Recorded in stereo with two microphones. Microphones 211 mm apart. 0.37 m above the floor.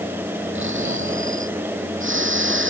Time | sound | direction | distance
0.6 | snoring | 65° right (ahead or behind) | ?